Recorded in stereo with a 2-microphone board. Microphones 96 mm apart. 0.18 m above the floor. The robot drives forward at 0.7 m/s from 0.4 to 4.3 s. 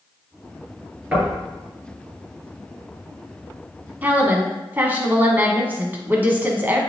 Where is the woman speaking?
20° right (ahead or behind), 1.4 m.